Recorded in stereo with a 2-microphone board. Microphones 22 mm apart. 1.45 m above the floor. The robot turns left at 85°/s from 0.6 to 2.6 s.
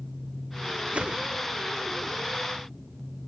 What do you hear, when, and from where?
0.9 s a whoosh: 120° right, 0.7 m; by 1.3 s 150° right, 0.7 m